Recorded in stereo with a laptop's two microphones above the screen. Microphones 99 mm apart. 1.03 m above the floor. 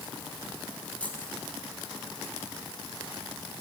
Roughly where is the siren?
No siren in this recording.